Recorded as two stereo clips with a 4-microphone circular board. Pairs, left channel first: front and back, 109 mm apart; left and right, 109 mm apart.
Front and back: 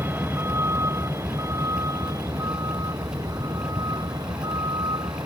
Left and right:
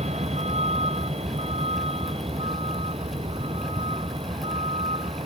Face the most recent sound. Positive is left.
turn(degrees=-125)